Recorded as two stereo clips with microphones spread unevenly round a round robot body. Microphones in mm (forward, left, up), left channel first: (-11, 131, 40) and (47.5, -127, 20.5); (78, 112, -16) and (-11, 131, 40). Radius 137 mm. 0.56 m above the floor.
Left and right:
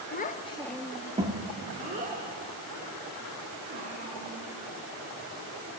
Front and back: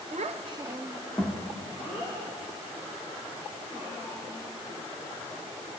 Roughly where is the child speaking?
Behind left.